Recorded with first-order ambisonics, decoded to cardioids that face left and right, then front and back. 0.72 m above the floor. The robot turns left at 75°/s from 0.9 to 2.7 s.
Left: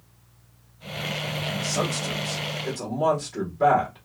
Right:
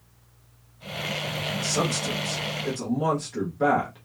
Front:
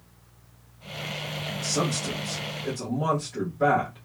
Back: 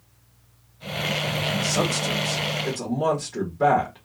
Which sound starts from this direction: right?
A man speaking, at 1.6 s.